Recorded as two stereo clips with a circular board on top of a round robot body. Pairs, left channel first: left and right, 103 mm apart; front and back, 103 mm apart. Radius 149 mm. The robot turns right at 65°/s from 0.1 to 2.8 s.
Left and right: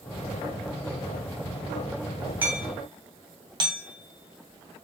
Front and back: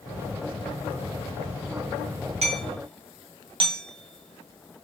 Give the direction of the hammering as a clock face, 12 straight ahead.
6 o'clock.